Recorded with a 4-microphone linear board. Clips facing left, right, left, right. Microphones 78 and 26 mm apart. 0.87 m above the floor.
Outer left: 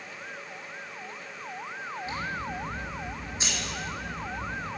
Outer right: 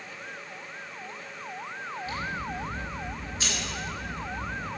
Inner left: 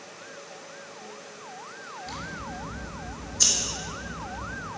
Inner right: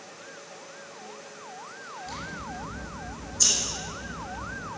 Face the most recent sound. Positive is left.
turn(degrees=20)  # may be behind; listen again after turning